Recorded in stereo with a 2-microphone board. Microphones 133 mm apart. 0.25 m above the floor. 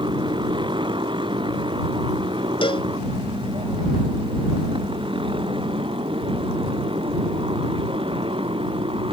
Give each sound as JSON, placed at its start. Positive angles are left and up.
{"t": 0.0, "sound": "a motorcycle", "side_deg": -35}
{"t": 2.6, "sound": "a cowbell", "side_deg": 40}